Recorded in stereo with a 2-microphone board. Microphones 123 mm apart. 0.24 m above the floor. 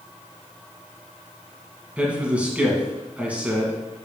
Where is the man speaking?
10° right (ahead or behind), 1.7 m.